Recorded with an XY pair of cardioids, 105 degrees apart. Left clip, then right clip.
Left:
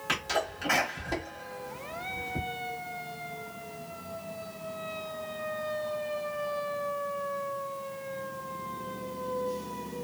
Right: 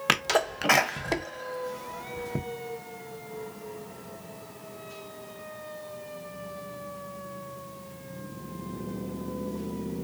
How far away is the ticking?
No ticking in this recording.